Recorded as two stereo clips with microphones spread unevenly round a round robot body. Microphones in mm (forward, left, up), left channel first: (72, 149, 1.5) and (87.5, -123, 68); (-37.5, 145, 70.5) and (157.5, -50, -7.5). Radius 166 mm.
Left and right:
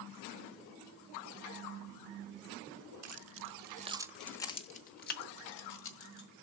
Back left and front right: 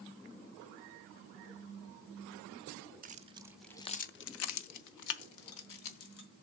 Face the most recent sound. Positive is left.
turn(degrees=125)